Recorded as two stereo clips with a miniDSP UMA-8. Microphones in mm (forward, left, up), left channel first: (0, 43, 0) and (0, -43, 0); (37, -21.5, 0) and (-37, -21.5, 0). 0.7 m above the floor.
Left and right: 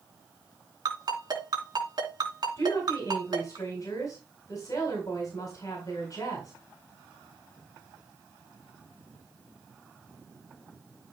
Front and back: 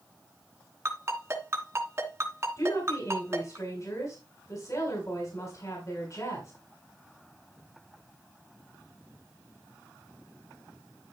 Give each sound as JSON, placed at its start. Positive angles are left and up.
{"t": 0.8, "sound": "a ringtone", "azimuth_deg": -130, "distance_m": 3.0}
{"t": 2.6, "sound": "a woman speaking", "azimuth_deg": 40, "distance_m": 4.0}